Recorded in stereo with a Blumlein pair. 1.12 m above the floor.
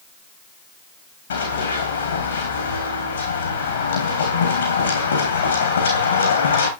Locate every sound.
1.3 s running footsteps: 65° left, 3.5 m